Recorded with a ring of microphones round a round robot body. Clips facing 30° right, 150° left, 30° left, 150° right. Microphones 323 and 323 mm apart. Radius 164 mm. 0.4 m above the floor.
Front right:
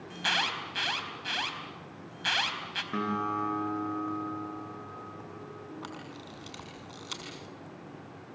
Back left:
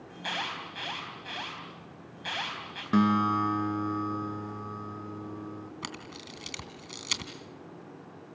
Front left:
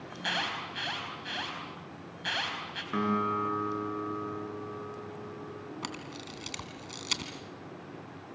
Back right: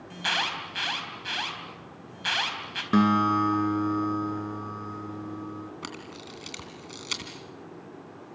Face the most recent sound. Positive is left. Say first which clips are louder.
# even, back right 1 dB
turn(degrees=110)